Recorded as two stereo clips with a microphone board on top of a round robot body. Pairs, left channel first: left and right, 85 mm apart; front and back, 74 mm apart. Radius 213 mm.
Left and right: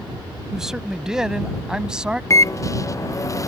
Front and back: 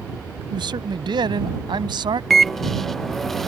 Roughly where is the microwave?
Left.